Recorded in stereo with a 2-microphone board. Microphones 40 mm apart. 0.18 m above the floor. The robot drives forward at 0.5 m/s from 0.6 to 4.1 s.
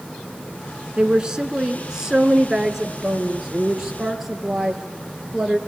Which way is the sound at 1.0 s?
20° right (ahead or behind).